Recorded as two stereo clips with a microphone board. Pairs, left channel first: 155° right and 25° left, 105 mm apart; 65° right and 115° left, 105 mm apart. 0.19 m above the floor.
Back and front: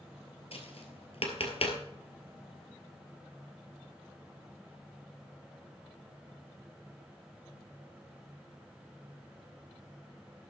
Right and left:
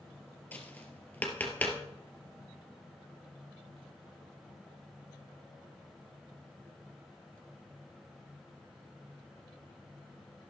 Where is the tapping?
140° right, 1.8 m.